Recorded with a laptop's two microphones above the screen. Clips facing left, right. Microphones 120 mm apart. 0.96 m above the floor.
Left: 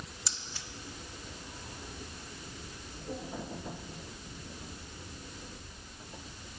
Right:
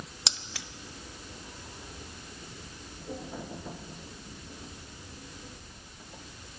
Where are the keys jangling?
80° right, 0.9 m.